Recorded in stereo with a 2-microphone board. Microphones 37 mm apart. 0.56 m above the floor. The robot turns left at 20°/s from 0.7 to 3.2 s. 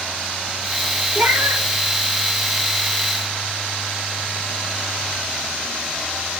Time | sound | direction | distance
1.1 | a cat meowing | 50° right (ahead or behind) | 1.0 m